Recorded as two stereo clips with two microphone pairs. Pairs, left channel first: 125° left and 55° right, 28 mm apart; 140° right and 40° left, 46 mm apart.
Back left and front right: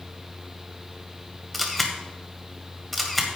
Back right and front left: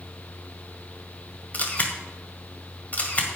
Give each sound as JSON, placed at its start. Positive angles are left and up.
{"t": 1.5, "sound": "a camera shutter", "azimuth_deg": -150, "distance_m": 1.7}